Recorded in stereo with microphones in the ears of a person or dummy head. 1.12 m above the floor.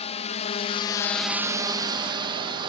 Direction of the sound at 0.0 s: 35° left (ahead or behind).